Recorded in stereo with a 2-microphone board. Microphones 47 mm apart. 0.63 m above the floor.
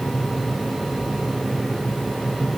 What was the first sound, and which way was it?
Only background noise.